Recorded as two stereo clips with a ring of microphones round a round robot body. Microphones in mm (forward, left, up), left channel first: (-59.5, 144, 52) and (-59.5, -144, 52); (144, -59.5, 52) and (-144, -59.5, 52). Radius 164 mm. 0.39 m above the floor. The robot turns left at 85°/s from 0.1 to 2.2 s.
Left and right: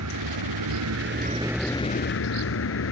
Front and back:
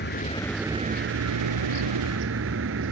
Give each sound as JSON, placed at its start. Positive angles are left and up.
{"t": 0.0, "sound": "a vehicle", "azimuth_deg": -50}